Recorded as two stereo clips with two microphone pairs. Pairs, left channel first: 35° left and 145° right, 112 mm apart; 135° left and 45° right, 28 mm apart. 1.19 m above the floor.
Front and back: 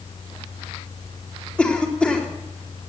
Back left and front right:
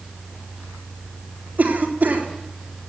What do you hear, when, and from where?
1.6 s a cough: 45° right, 3.5 m